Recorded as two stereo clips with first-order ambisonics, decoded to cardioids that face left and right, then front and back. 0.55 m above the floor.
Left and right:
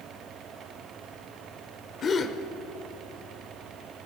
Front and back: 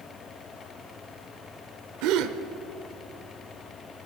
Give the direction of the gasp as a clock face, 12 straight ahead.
7 o'clock.